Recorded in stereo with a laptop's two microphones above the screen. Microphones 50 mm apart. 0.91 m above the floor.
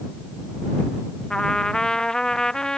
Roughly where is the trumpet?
Centre.